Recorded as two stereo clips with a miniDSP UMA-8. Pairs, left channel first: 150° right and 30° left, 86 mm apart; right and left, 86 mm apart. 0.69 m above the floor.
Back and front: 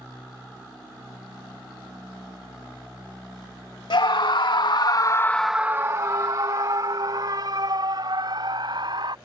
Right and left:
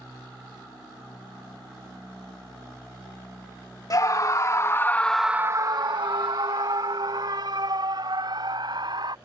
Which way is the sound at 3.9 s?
135° right.